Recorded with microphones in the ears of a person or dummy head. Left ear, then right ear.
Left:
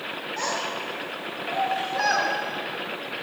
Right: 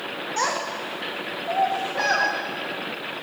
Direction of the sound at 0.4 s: 35° right (ahead or behind).